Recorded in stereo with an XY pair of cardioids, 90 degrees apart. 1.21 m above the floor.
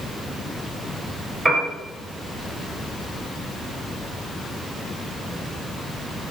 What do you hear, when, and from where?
1.4 s a piano: 25° right, 1.2 m